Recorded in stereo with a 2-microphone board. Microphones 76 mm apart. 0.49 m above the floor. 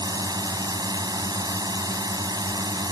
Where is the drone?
60° right (ahead or behind).